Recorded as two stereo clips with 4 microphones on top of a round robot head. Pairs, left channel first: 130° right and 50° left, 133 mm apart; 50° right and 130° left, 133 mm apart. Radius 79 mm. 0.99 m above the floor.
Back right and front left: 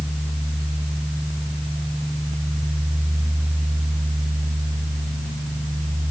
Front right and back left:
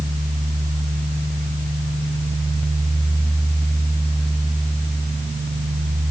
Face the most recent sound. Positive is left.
No sound to turn to.